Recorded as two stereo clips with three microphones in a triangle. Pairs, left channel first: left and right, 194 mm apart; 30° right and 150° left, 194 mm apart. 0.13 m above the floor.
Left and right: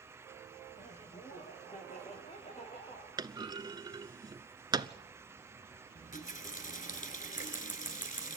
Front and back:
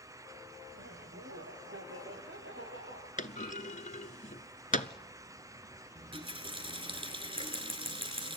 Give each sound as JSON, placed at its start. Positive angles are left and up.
{"t": 0.7, "sound": "laughter", "azimuth_deg": 145, "distance_m": 6.0}
{"t": 3.2, "sound": "a clunk", "azimuth_deg": -30, "distance_m": 0.8}
{"t": 6.0, "sound": "a running tap", "azimuth_deg": 100, "distance_m": 1.4}
{"t": 7.4, "sound": "scissors", "azimuth_deg": 110, "distance_m": 8.5}